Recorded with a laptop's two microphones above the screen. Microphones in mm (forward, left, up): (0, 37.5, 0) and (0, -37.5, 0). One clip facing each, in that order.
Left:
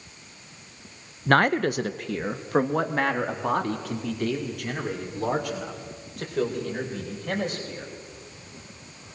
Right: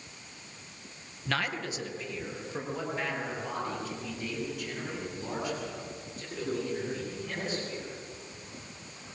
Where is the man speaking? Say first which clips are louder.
Left 12 dB; 45° left (ahead or behind), 0.6 m; by 7.9 s 60° left (ahead or behind), 6 m.